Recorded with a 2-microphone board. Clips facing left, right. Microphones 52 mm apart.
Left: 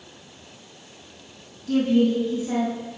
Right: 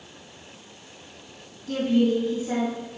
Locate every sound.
1.7 s a woman speaking: 10° right (ahead or behind), 3 m